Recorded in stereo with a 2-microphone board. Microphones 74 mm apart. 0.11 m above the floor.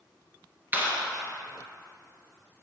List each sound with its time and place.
0.7 s a clap: 25° right (ahead or behind), 1.8 m